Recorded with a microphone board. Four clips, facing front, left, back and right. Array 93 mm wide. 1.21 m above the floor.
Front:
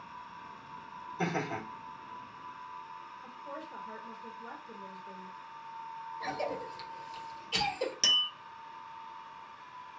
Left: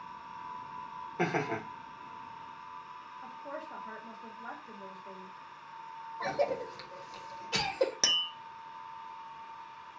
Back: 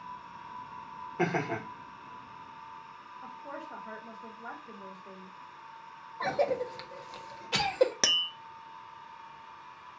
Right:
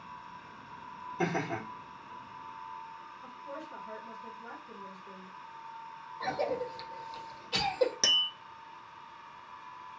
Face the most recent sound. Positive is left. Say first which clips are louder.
# right 2 dB, back 1 dB
turn(degrees=180)